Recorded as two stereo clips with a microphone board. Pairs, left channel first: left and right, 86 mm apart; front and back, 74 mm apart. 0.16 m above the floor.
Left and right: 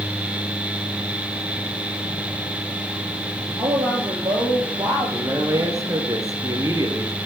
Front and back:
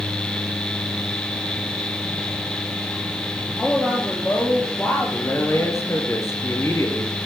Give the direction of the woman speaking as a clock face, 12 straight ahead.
3 o'clock.